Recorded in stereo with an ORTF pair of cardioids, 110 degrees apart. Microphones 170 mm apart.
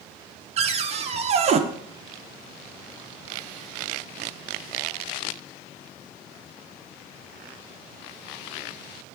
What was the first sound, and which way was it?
A cupboard door, 40° right.